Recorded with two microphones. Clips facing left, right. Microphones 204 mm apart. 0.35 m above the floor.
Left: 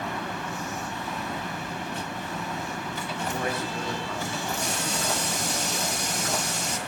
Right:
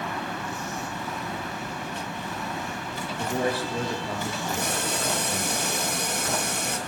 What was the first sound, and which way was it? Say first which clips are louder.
A man speaking: right 4 dB; 30° right (ahead or behind).